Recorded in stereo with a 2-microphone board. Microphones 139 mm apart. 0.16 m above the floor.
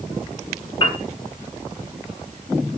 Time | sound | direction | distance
0.8 | a piano | 35° left (ahead or behind) | 0.9 m